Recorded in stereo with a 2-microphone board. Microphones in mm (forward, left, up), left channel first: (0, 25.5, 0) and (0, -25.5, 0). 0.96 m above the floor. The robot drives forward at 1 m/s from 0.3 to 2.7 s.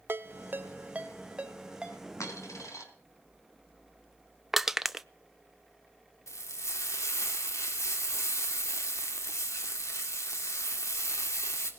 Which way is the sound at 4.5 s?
5° right (ahead or behind).